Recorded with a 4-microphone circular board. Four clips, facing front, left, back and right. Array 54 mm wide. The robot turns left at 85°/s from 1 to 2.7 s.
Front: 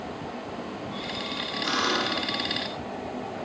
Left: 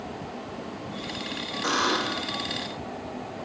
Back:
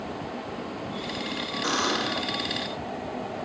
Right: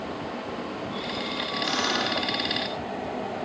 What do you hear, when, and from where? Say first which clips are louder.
1.6 s a buzzer: left 3 dB, front 1 dB; 130° left, 8 m; by 2.3 s 75° left, 8 m